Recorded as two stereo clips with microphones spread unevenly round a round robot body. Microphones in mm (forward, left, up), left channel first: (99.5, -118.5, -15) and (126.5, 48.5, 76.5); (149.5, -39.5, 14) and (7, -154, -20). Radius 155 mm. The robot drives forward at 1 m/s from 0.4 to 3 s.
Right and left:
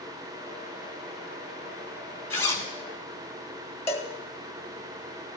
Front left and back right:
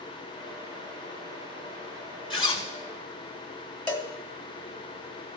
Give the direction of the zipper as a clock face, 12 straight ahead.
1 o'clock.